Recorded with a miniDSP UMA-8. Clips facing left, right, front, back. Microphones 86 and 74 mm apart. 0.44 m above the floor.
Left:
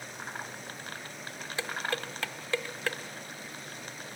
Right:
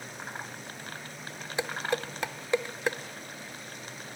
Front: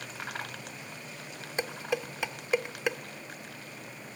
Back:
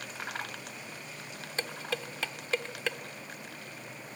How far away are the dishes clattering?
About 0.6 m.